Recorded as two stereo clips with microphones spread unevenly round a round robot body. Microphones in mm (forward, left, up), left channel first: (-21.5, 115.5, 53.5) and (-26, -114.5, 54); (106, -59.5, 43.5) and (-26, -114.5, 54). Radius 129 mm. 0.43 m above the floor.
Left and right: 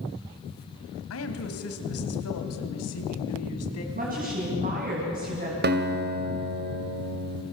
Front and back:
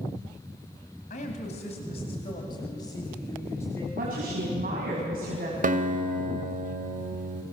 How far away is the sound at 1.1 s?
About 3 m.